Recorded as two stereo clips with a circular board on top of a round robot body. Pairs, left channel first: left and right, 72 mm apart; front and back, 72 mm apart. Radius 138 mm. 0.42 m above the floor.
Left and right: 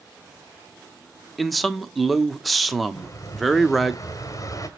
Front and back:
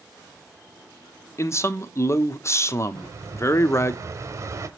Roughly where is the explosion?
Behind left.